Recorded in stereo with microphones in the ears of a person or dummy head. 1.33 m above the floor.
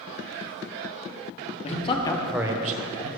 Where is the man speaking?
40° left (ahead or behind), 1.1 m; by 3.1 s 75° right (ahead or behind), 0.8 m.